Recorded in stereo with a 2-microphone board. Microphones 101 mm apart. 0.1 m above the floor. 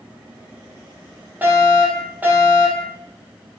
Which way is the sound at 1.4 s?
20° right (ahead or behind).